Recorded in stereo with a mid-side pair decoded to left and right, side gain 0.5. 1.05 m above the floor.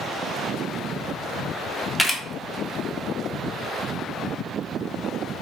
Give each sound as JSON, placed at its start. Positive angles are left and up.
{"t": 2.0, "sound": "a camera shutter", "azimuth_deg": 15, "distance_m": 0.7}